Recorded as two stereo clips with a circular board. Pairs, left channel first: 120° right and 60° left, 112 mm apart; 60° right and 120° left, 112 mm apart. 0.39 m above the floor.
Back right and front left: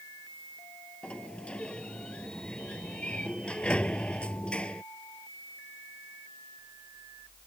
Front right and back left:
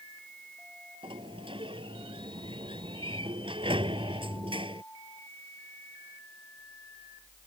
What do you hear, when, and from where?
1.0 s a sliding door: 160° left